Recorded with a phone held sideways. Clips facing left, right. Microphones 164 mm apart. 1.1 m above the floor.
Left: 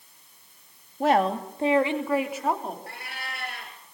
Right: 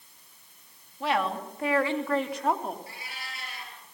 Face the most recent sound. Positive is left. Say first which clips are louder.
# left 4 dB
turn(degrees=60)  # may be behind; listen again after turning